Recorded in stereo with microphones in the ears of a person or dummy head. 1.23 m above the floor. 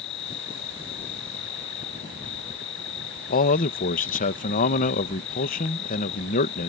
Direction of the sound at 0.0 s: 65° left (ahead or behind).